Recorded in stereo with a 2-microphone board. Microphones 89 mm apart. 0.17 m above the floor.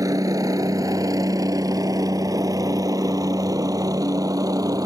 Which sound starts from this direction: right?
A helicopter, at 0.0 s.